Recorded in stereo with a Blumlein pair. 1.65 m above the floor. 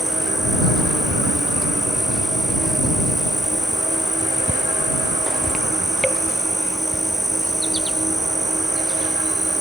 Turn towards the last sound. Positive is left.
turn(degrees=-5)